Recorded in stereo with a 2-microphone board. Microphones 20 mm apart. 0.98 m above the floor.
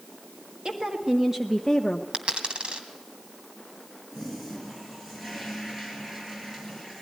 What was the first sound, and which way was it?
A woman speaking, 50° right (ahead or behind).